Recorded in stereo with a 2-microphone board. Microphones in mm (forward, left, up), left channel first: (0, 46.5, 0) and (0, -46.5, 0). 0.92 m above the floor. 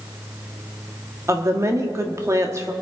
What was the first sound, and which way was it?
A woman speaking, 35° right (ahead or behind).